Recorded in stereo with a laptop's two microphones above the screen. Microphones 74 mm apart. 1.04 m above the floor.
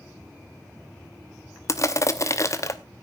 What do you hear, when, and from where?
1.7 s crushing: 45° left (ahead or behind), 0.7 m